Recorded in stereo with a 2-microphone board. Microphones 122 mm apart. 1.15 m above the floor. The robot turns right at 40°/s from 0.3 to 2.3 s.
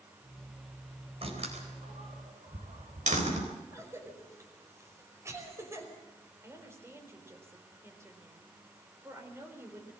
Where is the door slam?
55° right (ahead or behind), 4 m; by 3.5 s 80° right, 4 m.